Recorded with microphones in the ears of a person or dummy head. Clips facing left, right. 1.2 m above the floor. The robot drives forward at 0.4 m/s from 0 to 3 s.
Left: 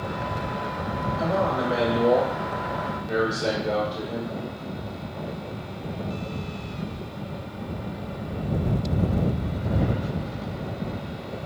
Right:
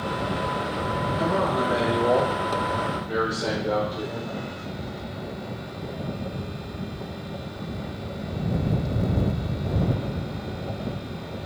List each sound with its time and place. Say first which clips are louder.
1.2 s a man speaking: even; 40° right (ahead or behind), 0.9 m; by 4.3 s 25° right (ahead or behind), 1.5 m